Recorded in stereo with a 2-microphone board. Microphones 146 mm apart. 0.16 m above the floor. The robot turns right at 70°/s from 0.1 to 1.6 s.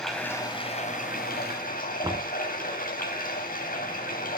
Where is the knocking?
20° right (ahead or behind), 0.8 m.